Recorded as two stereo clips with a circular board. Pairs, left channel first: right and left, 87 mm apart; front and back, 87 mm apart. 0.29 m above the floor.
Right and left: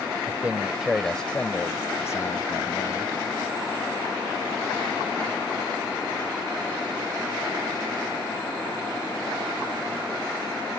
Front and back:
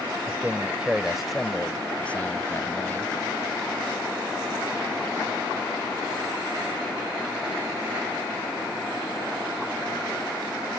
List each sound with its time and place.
0.3 s a man speaking: 135° left; by 3.1 s 60° right